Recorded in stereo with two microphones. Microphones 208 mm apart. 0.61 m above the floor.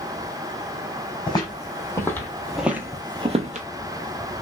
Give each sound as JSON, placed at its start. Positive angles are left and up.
{"t": 1.3, "sound": "footsteps", "side_deg": 20, "distance_m": 1.4}